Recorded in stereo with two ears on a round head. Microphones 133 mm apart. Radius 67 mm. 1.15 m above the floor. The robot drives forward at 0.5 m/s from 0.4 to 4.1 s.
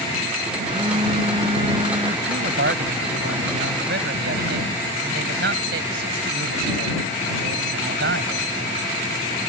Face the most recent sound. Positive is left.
turn(degrees=-75)  # may be behind; listen again after turning